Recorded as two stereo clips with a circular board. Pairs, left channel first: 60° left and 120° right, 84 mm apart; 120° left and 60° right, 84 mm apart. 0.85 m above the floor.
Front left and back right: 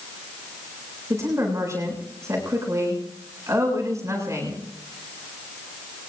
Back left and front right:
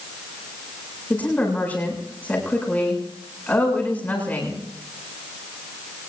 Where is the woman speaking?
170° right, 7 m.